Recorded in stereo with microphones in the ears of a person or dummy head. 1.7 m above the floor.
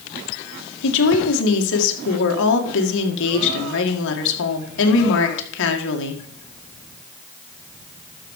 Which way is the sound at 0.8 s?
70° left (ahead or behind).